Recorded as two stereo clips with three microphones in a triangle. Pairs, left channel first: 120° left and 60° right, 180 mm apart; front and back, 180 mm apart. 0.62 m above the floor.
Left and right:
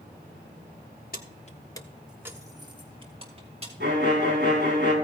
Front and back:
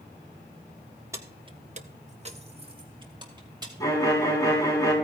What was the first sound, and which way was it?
Keys jangling, 110° left.